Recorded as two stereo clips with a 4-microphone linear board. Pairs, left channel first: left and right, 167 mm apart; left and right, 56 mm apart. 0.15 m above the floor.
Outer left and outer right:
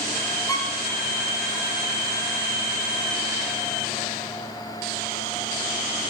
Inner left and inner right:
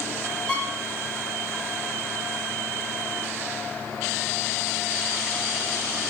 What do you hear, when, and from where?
0.5 s a violin: 20° left (ahead or behind), 7.5 m